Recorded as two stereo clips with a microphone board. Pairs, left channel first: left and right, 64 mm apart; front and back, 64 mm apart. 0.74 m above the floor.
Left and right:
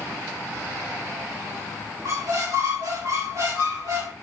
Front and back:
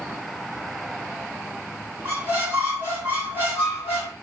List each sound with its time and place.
2.0 s a squeak: 120° right, 3 m